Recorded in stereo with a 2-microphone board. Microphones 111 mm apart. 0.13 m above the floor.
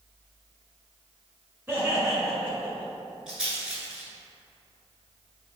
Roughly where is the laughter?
Centre.